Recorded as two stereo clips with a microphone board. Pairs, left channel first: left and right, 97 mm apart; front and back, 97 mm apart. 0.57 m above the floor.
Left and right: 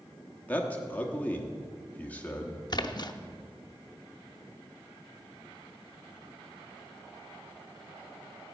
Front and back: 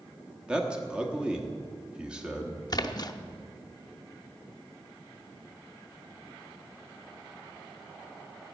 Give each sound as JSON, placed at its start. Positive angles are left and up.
{"t": 0.5, "sound": "a man speaking", "azimuth_deg": 125, "distance_m": 1.1}
{"t": 2.7, "sound": "a splash", "azimuth_deg": 45, "distance_m": 0.6}